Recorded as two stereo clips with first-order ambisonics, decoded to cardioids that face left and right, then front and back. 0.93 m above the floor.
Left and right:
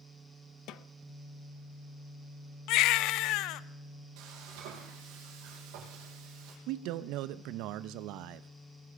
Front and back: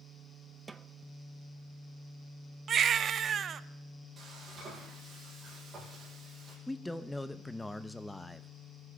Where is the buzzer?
No buzzer in this recording.